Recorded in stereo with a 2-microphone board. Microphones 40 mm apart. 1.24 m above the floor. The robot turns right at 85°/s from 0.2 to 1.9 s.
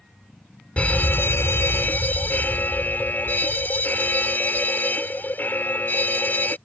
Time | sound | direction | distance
0.8 | an alarm | 30° left | ?